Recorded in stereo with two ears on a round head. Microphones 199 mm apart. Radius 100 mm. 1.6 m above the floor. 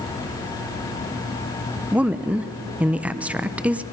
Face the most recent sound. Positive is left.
turn(degrees=-5)  # may be behind; listen again after turning